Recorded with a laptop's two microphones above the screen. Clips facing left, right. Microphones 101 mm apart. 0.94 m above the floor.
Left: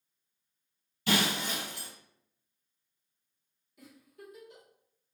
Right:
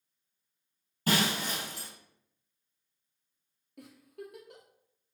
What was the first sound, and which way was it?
Breaking glass, 45° right (ahead or behind).